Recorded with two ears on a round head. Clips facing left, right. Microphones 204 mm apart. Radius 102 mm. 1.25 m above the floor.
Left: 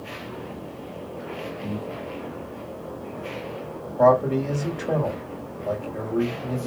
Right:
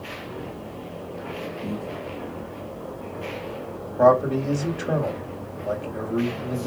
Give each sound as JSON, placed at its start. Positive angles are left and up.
{"t": 1.6, "sound": "breathing", "side_deg": -20, "distance_m": 1.7}
{"t": 4.0, "sound": "a man speaking", "side_deg": 0, "distance_m": 2.5}